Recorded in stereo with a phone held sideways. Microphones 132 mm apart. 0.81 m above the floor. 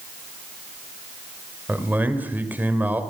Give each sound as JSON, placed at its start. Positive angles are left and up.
{"t": 1.7, "sound": "a man speaking", "side_deg": -15, "distance_m": 2.5}